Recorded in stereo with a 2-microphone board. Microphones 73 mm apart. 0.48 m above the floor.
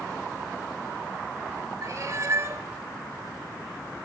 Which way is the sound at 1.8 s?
45° right (ahead or behind).